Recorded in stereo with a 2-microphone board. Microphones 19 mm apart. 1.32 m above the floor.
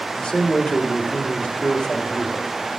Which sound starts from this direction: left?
A man speaking, at 0.1 s.